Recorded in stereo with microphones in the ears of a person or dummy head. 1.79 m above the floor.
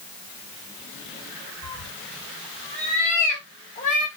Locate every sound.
1.6 s a cat meowing: 35° left (ahead or behind), 4.5 m; by 4.1 s 40° left (ahead or behind), 3 m